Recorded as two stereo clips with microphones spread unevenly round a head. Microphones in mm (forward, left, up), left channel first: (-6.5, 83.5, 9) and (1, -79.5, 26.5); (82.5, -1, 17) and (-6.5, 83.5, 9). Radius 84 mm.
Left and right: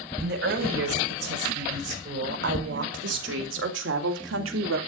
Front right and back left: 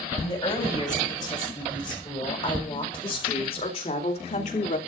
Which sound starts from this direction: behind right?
A woman speaking, at 0.2 s.